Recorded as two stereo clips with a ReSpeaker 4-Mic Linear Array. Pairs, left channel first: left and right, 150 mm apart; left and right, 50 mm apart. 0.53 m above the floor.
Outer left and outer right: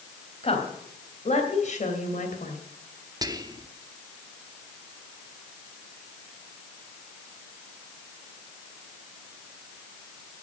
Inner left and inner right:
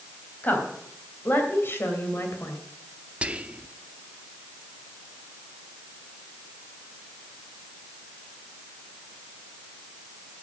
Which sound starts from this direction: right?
Whispering, at 3.2 s.